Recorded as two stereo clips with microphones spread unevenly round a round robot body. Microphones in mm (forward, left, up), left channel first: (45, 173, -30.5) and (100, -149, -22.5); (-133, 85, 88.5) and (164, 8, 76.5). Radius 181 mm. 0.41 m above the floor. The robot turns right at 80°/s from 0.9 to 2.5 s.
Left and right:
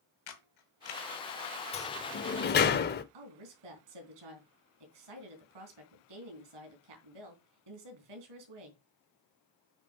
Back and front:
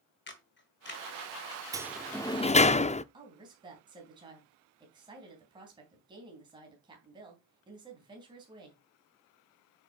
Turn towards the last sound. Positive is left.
turn(degrees=-90)